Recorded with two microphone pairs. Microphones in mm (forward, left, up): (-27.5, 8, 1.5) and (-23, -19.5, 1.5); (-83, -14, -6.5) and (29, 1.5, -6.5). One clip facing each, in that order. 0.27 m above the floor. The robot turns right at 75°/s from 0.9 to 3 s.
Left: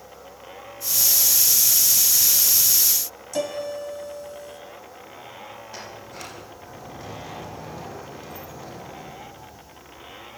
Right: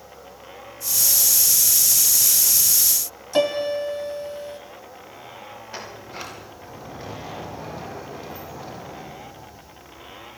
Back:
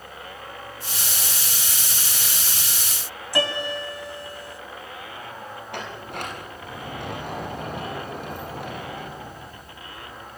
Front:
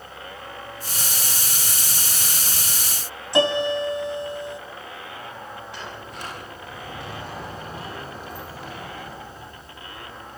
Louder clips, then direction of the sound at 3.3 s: Right 7 dB, front 6 dB; 55° right.